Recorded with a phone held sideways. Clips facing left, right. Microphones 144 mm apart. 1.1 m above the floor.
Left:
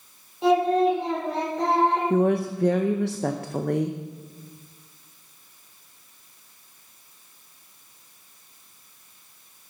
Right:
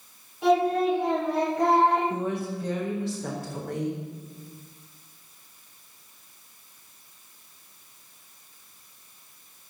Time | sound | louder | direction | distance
0.4 | singing | left 2 dB | 25° left (ahead or behind) | 5.5 m
2.1 | a woman speaking | left 8 dB | 65° left (ahead or behind) | 0.6 m